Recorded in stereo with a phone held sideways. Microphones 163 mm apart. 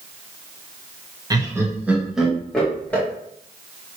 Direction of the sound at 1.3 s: 25° right (ahead or behind).